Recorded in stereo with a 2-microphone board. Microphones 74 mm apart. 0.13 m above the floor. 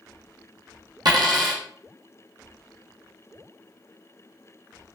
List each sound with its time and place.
1.1 s a dropped coin: 65° right (ahead or behind), 1.2 m